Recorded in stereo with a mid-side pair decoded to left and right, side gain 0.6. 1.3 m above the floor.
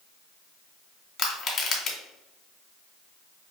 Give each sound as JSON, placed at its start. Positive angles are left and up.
{"t": 1.2, "sound": "crushing", "azimuth_deg": 45, "distance_m": 1.8}